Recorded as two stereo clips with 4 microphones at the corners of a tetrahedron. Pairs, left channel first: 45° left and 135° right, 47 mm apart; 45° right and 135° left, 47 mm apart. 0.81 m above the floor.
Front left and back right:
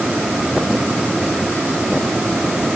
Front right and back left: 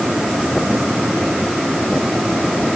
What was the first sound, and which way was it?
Only background noise.